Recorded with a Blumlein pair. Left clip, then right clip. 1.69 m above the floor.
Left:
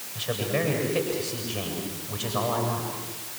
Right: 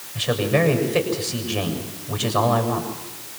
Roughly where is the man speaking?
Ahead right.